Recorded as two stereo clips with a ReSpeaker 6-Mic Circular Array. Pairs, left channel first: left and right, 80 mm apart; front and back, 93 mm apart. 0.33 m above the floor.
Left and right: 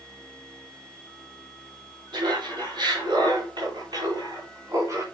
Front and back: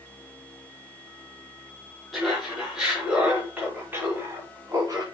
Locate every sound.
2.1 s laughter: 90° right, 4.5 m; by 5.0 s 135° right, 3 m